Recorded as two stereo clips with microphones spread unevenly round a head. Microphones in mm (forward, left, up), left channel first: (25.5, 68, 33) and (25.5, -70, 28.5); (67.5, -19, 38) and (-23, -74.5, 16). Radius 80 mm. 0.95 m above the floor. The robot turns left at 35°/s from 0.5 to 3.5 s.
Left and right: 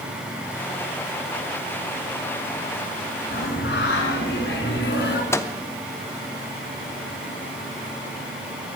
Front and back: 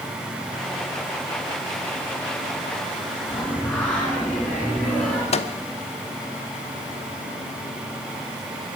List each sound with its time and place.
3.3 s singing: 120° left, 2 m; by 5.2 s 115° left, 2 m
5.3 s a microwave: 20° left, 0.9 m